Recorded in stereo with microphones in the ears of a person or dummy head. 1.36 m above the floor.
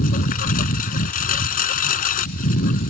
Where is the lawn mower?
45° left (ahead or behind).